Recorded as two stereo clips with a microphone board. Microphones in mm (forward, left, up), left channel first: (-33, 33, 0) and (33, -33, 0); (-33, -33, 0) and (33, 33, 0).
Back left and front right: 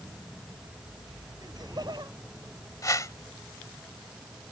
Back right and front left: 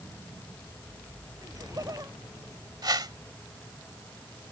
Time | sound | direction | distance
1.4 | laughter | 5° right | ?
2.8 | a whoosh | 85° left | ?